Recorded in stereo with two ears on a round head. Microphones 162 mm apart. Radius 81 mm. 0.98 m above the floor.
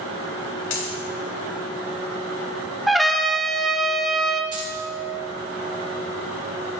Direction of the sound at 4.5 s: 25° right (ahead or behind).